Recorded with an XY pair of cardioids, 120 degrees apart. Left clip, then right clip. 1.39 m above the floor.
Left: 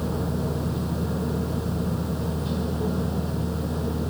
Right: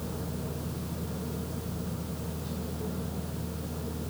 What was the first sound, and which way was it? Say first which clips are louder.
A machine running: left 9 dB; 50° left.